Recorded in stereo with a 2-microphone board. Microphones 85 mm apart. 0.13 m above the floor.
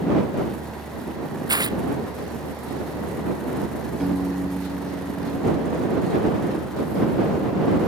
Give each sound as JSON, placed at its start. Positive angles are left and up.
{"t": 1.5, "sound": "tearing paper", "side_deg": -50}
{"t": 4.0, "sound": "a piano", "side_deg": -5}